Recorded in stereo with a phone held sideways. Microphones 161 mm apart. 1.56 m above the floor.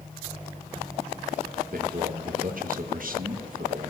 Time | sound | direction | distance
1.7 | a man speaking | 60° right (ahead or behind) | 1.7 m